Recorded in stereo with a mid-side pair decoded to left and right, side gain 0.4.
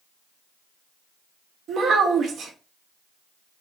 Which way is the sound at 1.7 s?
70° right.